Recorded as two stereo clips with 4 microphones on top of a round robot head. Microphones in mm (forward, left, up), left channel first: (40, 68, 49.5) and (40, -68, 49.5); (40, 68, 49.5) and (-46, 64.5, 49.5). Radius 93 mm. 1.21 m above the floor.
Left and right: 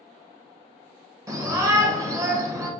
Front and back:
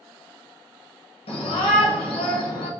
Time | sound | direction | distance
1.3 | a shout | 25° right | 1.3 m